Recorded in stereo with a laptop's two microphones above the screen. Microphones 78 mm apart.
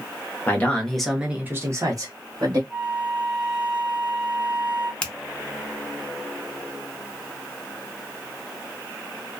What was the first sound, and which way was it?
A man speaking, 25° left (ahead or behind).